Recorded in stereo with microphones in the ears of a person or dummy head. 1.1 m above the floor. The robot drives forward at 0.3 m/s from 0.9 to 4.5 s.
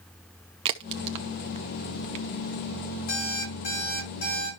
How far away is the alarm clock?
About 6.5 m.